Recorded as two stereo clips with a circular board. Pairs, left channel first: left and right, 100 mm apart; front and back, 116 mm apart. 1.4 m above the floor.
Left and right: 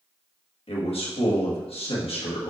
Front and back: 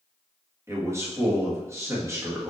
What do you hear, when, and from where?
0.7 s a man speaking: 115° left, 2 m